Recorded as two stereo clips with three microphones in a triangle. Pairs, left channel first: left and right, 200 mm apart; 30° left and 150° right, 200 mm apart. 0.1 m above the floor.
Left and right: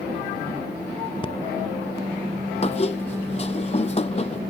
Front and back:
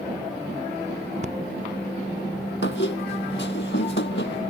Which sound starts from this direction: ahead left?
A squeak, at 2.6 s.